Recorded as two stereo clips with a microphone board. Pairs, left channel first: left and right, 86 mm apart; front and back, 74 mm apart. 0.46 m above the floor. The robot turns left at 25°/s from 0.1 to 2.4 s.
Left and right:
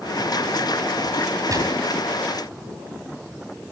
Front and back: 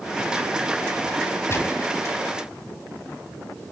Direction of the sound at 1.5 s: 50° right.